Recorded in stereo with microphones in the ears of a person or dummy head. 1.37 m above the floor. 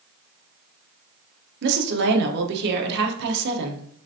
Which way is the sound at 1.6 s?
60° right (ahead or behind).